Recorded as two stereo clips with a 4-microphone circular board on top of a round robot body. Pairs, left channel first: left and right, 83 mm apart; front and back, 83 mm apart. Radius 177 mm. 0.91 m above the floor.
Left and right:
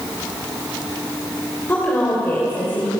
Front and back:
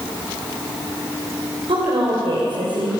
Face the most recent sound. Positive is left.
turn(degrees=155)